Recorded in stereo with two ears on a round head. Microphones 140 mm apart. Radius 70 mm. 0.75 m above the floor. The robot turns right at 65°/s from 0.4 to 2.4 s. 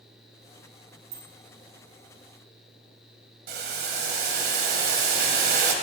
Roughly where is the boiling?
Right.